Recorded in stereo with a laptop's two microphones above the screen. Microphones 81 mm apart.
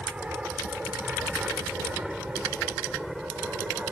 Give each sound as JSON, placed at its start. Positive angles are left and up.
{"t": 0.0, "sound": "an aircraft", "side_deg": -15}